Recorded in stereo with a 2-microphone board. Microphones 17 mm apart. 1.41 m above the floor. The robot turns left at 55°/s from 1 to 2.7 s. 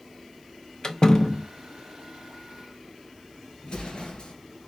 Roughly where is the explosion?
Left.